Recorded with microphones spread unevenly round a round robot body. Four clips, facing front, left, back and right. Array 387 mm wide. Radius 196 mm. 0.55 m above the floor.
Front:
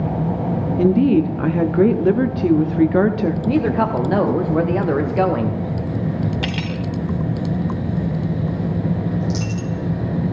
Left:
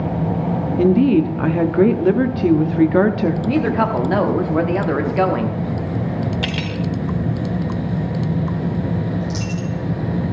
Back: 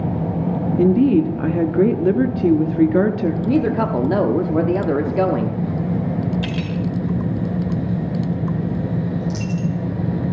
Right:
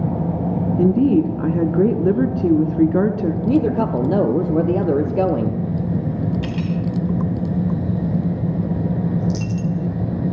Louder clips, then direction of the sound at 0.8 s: Left 2 dB, even; 170° left.